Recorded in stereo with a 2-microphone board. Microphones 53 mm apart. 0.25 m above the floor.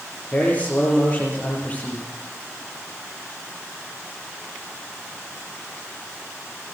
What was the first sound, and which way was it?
A man speaking, 30° left (ahead or behind).